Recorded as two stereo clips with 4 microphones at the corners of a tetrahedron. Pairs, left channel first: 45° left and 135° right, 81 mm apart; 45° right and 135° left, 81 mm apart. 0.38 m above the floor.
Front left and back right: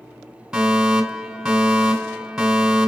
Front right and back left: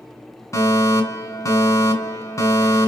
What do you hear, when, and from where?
0.5 s a fire alarm: 50° right, 2.5 m